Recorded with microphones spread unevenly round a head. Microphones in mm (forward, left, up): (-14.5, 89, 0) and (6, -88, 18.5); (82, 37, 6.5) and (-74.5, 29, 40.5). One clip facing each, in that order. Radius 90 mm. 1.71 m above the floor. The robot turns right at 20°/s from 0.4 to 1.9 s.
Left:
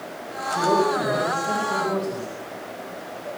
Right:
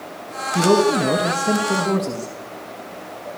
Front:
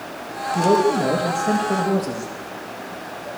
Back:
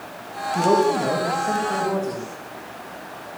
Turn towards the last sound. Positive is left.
turn(degrees=-50)